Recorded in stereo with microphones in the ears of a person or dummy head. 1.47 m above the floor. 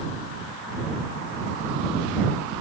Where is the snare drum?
No snare drum in this recording.